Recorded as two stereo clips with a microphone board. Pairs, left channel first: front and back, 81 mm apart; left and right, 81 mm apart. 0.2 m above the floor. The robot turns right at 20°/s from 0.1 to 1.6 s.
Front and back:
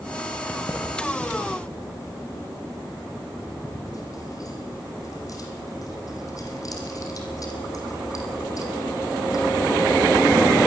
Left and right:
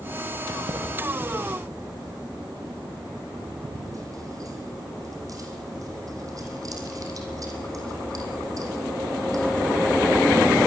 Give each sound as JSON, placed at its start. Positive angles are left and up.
{"t": 0.5, "sound": "keys jangling", "azimuth_deg": -70, "distance_m": 6.0}